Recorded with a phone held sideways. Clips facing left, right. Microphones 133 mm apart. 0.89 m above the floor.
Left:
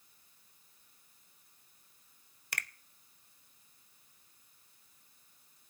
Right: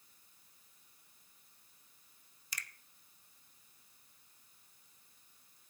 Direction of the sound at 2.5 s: 60° left (ahead or behind).